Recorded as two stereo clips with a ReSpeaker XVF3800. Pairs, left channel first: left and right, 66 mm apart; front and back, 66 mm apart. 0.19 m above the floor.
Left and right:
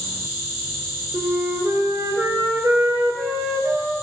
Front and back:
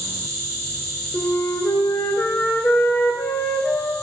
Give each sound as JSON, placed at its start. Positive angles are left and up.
{"t": 0.0, "sound": "an insect", "azimuth_deg": 5, "distance_m": 1.7}
{"t": 1.1, "sound": "a flute", "azimuth_deg": -45, "distance_m": 0.5}